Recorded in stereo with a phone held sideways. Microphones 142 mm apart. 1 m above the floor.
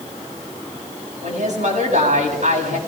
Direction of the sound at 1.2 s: 60° right (ahead or behind).